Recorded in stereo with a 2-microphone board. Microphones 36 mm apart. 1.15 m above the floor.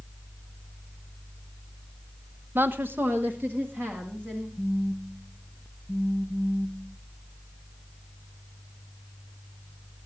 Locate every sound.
2.5 s a woman speaking: 70° right (ahead or behind), 0.7 m; by 4.5 s 50° right (ahead or behind), 2.5 m
4.6 s a phone buzzing: 5° left (ahead or behind), 0.6 m